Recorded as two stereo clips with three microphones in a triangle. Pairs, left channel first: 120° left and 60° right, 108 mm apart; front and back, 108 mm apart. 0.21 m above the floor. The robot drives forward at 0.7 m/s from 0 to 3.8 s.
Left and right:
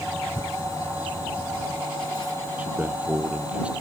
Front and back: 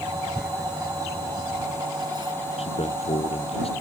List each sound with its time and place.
0.3 s tearing paper: 90° left; by 2.3 s 150° left
2.6 s a man speaking: 15° left; by 3.7 s 20° left